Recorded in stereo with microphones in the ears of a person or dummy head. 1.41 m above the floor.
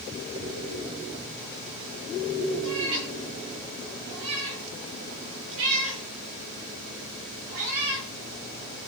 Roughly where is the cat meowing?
Right.